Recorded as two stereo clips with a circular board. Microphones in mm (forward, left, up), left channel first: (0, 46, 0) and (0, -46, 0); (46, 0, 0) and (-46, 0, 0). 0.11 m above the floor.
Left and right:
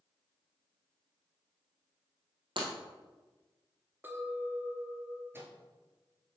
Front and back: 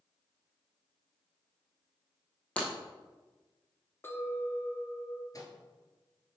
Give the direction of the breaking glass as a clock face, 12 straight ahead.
3 o'clock.